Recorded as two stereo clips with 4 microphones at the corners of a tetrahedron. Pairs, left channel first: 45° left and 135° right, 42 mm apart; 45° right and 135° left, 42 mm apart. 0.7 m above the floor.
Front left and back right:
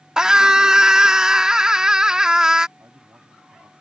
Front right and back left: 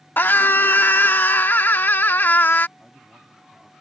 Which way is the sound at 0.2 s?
65° right.